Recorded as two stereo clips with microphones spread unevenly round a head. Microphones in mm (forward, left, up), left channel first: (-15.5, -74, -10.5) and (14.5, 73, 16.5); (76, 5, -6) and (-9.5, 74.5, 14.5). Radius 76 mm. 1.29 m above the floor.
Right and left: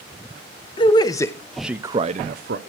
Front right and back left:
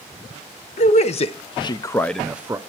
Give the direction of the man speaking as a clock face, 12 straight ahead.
2 o'clock.